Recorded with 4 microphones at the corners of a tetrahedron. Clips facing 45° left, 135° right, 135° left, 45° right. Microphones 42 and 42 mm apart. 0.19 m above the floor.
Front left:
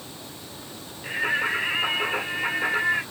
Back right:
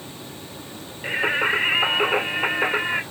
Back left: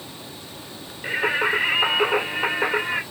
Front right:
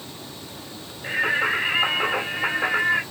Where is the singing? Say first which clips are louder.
Back right 3 dB, even; 175° left, 2 m.